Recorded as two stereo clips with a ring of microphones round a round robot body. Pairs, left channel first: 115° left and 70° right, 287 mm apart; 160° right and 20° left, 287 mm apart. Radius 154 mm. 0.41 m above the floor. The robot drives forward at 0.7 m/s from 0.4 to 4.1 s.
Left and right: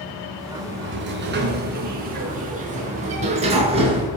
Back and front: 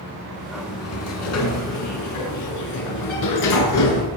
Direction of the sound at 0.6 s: 115° right.